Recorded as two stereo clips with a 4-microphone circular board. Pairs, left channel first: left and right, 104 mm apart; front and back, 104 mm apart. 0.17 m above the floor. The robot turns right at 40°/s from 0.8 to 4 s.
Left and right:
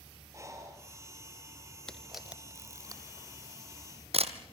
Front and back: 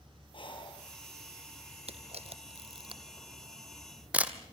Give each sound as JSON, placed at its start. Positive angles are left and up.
{"t": 0.3, "sound": "breathing", "azimuth_deg": -30, "distance_m": 3.0}
{"t": 1.9, "sound": "a camera shutter", "azimuth_deg": 175, "distance_m": 1.6}